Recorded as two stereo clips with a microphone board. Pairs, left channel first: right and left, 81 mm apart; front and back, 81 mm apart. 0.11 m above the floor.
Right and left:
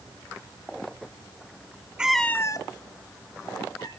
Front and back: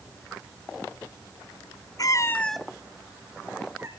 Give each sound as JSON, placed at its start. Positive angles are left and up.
{"t": 2.0, "sound": "a cat meowing", "azimuth_deg": 15, "distance_m": 0.8}